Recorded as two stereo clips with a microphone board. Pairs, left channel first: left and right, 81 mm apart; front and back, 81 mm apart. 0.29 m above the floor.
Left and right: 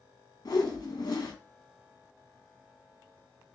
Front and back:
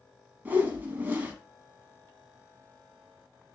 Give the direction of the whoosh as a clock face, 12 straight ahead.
8 o'clock.